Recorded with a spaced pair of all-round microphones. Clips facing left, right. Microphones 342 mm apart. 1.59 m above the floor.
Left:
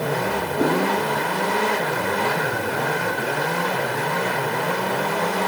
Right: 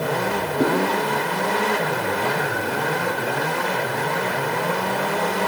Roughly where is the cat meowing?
Left.